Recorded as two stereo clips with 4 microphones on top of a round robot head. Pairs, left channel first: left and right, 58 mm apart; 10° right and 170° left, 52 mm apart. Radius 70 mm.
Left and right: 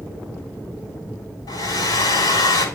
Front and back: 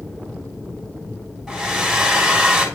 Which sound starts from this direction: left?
A hair dryer, at 1.5 s.